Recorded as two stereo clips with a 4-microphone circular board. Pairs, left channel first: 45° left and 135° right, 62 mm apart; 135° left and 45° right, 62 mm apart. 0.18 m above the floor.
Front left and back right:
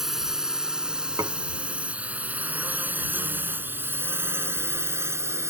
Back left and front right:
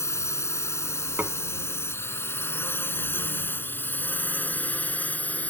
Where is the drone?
145° left; by 5.5 s 165° right.